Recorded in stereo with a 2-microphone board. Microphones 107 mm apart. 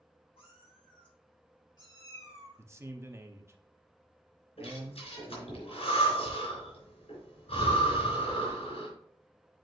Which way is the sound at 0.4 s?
55° left (ahead or behind).